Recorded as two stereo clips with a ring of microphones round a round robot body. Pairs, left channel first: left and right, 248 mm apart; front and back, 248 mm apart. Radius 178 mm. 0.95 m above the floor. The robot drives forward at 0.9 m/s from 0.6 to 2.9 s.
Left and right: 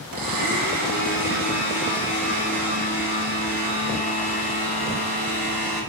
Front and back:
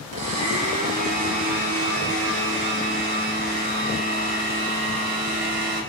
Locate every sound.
0.1 s a blender: 130° right, 1.6 m; by 5.8 s 160° right, 3.5 m